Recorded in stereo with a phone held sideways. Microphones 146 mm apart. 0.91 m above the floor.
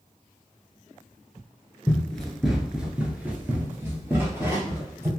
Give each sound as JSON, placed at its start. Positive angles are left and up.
{"t": 1.9, "sound": "running footsteps", "side_deg": 5, "distance_m": 0.9}